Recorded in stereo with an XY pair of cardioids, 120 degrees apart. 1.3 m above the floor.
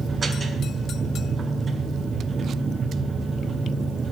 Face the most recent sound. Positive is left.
turn(degrees=-30)